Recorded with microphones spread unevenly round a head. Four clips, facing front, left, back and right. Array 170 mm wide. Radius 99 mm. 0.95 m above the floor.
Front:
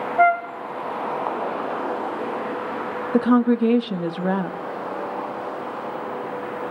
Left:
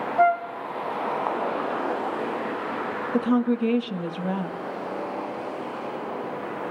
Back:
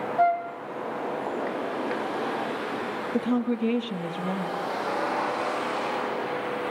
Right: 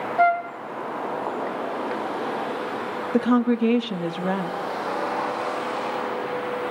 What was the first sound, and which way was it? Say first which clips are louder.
A flute: even, front 5 dB; 20° right.